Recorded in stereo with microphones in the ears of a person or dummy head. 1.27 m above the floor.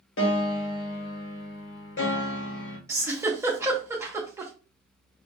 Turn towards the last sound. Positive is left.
turn(degrees=-25)  # may be behind; listen again after turning